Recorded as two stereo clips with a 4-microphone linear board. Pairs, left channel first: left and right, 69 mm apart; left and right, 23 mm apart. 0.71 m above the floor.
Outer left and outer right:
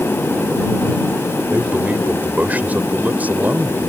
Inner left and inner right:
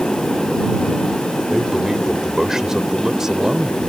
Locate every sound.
1.5 s a man speaking: 25° right (ahead or behind)